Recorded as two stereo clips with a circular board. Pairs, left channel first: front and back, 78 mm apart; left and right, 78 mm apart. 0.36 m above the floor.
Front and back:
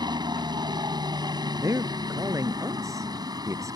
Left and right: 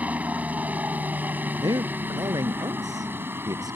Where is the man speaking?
130° right.